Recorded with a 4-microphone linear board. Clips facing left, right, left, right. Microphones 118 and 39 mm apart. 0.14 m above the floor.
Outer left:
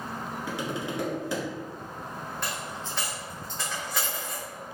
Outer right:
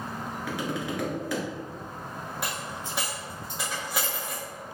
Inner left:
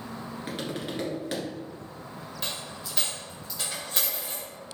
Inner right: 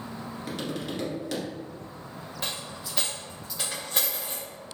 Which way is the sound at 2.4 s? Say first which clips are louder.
Outer right 1 dB, inner right 1 dB; 10° right (ahead or behind).